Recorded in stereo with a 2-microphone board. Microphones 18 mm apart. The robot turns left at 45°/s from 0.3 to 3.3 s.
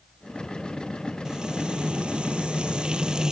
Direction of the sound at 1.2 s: 45° right.